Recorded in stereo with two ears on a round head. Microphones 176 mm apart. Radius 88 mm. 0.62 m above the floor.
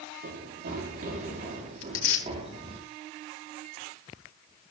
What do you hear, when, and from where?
0.2 s running footsteps: 50° right (ahead or behind), 6.5 m; by 2.8 s 30° right (ahead or behind), 6.5 m
1.8 s tearing paper: 70° left (ahead or behind), 2 m